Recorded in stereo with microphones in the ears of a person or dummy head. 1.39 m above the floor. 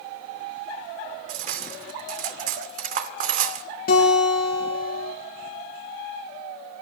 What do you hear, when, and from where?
1.3 s cutlery clinking: 50° right (ahead or behind), 2 m
3.9 s a guitar: 55° left (ahead or behind), 8 m